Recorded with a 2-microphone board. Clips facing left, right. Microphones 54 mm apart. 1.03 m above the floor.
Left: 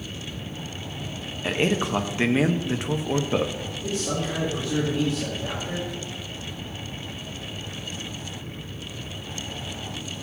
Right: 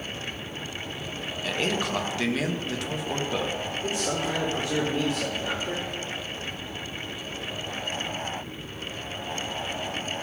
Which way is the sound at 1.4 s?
25° left (ahead or behind).